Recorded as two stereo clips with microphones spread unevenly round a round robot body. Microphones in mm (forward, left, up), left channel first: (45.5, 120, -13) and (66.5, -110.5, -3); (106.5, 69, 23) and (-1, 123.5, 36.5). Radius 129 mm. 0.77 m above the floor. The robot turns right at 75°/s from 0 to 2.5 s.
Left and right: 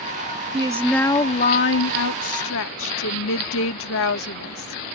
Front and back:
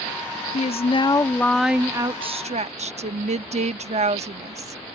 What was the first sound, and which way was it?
A woman speaking, 20° right.